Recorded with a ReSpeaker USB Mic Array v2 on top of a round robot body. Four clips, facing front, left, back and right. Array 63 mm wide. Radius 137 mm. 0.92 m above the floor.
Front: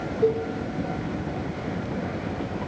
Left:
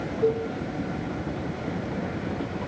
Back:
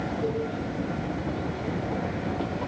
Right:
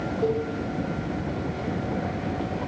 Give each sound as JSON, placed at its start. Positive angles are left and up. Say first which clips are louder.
{"t": 0.2, "sound": "a cowbell", "louder": "left 2 dB, front 9 dB", "azimuth_deg": -10, "distance_m": 0.6}